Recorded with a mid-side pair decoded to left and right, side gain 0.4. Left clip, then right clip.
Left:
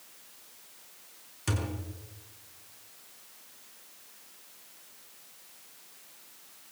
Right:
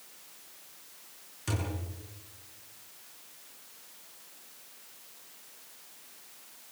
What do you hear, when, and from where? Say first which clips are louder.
1.5 s a thud: left 1 dB; 40° left, 6 m